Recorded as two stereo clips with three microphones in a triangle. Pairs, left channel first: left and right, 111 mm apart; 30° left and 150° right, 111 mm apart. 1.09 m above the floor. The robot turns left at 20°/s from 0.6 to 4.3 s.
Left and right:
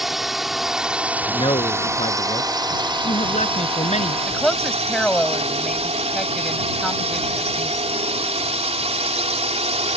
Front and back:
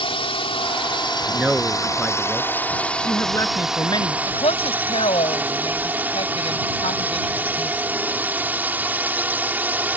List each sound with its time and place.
0.0 s a drone: straight ahead; by 10.0 s 75° right
1.3 s a man speaking: 130° left; by 4.2 s 75° left
4.3 s a woman speaking: 5° left